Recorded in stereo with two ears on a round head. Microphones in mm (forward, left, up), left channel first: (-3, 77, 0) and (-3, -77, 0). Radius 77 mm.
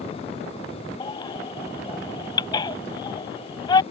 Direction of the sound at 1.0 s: 25° left (ahead or behind).